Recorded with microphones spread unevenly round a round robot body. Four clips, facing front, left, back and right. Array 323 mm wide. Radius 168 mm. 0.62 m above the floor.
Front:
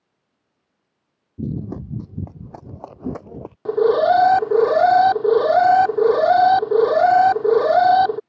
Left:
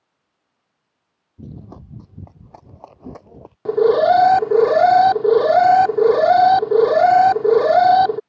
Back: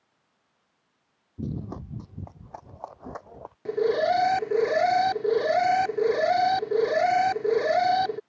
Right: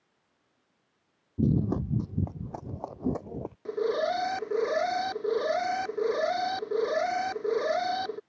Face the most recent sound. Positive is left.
turn(degrees=80)